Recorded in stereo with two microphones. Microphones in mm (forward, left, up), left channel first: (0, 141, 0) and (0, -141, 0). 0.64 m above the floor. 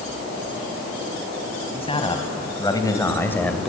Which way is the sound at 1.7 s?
20° left (ahead or behind).